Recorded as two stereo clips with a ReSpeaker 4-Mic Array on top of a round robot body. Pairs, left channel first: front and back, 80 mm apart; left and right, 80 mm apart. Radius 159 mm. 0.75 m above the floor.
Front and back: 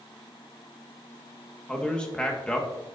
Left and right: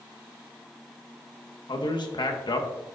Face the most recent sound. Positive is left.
turn(degrees=80)